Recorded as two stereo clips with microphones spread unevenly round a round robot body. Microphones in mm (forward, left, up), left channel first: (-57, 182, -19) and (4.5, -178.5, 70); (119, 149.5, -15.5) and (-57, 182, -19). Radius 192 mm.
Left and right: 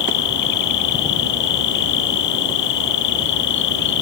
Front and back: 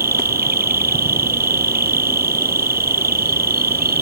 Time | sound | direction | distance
0.0 | an insect | 140° left | ?